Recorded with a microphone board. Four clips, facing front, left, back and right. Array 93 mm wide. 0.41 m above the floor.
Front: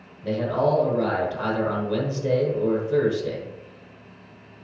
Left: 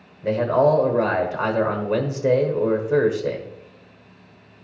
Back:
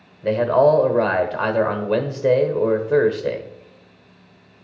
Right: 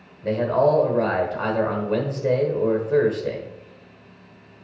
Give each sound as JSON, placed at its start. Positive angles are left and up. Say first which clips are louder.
{"t": 0.2, "sound": "a man speaking", "louder": "left 1 dB, back 7 dB", "azimuth_deg": 160, "distance_m": 1.2}